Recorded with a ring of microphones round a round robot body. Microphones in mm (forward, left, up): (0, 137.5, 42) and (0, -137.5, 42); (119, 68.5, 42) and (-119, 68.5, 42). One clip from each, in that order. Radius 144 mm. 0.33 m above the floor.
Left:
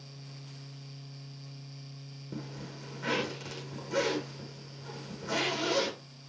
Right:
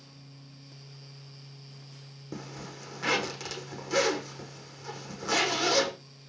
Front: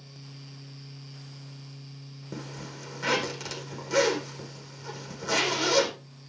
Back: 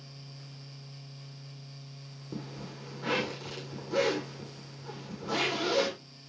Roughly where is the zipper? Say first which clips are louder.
Right 2 dB, front 3 dB; ahead right.